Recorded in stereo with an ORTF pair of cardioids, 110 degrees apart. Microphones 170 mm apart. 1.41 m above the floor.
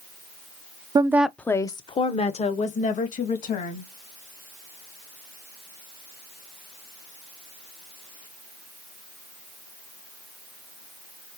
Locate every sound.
0.9 s a woman speaking: 25° right, 0.5 m; by 3.9 s 50° left, 2 m